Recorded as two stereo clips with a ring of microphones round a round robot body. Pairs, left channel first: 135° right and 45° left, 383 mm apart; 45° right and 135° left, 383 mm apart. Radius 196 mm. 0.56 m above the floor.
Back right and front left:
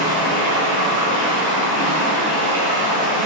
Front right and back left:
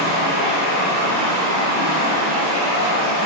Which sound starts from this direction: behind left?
Running water, at 0.0 s.